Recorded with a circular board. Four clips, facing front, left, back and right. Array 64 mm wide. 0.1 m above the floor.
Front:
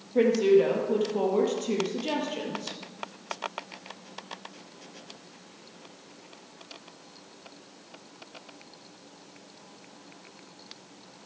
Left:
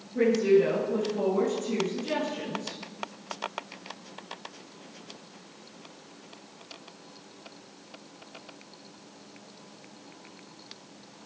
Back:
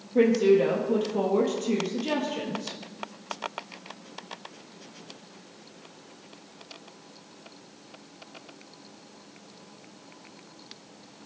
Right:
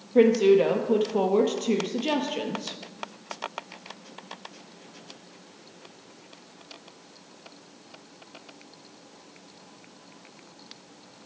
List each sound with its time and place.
0.1 s a woman speaking: 90° right, 2 m